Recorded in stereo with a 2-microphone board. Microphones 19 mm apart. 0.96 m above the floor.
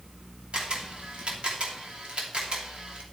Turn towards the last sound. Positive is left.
turn(degrees=-70)  # may be behind; listen again after turning